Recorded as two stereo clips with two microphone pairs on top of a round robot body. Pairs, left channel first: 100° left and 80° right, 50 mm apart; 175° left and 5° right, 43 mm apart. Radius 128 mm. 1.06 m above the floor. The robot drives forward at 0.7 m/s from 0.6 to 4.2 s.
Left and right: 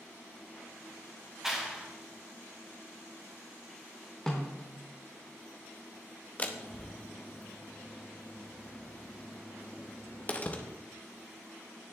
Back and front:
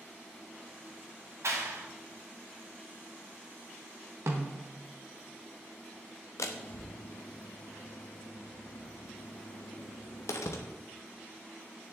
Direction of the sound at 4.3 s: 20° left.